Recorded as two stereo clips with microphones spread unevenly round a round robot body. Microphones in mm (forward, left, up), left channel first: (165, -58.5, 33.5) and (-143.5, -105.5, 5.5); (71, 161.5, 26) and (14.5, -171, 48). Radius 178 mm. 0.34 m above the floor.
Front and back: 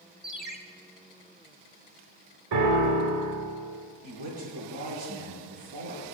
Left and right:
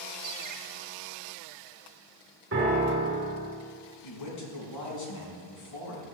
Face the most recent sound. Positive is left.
turn(degrees=120)